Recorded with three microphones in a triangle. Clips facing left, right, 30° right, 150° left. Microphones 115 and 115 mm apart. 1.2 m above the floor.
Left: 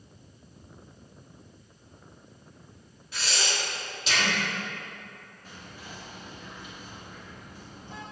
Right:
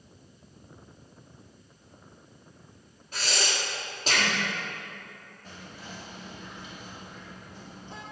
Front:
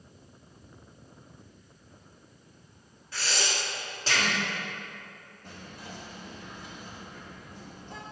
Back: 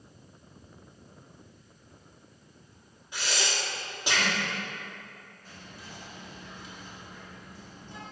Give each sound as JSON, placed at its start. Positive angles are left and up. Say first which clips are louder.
{"t": 3.1, "sound": "breathing", "louder": "right 1 dB, even", "azimuth_deg": -135, "distance_m": 1.4}
{"t": 5.4, "sound": "whispering", "louder": "right 1 dB, front 4 dB", "azimuth_deg": -10, "distance_m": 1.3}